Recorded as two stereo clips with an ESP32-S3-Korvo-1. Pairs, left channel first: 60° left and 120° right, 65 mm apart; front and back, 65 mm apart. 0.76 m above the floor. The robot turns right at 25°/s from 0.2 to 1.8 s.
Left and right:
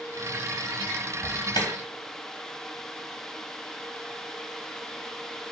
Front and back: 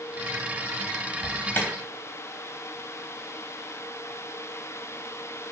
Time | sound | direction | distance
1.2 | an alarm | 45° left | 3 m